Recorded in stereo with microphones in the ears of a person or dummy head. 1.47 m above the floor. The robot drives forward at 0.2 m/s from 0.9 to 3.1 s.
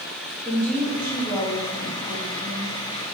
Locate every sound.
0.5 s a woman speaking: 15° left (ahead or behind), 2 m; by 2.8 s 10° left (ahead or behind), 2.5 m